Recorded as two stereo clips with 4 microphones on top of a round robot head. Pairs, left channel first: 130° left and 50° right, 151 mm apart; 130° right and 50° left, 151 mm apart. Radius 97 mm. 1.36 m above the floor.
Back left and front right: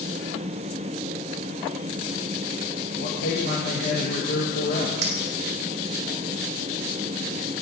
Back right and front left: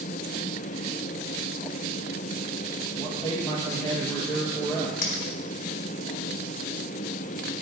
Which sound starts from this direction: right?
A clink, at 5.0 s.